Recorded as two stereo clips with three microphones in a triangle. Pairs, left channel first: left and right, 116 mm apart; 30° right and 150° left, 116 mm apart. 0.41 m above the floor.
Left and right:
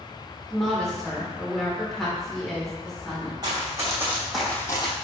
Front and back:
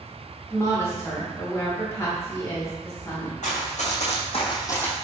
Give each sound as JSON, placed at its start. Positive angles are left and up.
{"t": 0.5, "sound": "a woman speaking", "azimuth_deg": 5, "distance_m": 0.9}
{"t": 3.4, "sound": "running footsteps", "azimuth_deg": -35, "distance_m": 1.7}